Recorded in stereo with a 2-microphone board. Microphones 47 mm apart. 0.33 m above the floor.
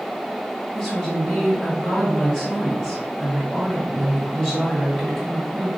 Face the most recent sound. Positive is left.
turn(degrees=5)  # may be behind; listen again after turning